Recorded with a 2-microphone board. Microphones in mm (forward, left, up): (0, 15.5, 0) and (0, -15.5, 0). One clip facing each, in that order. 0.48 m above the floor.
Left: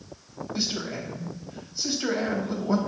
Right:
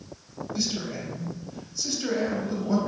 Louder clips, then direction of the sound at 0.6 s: Even; 20° left (ahead or behind).